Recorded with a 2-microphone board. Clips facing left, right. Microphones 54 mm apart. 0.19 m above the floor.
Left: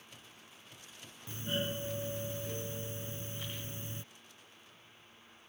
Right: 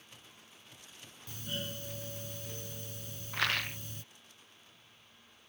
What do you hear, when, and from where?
1.3 s a doorbell: 30° left (ahead or behind)
3.3 s a rattle: 90° right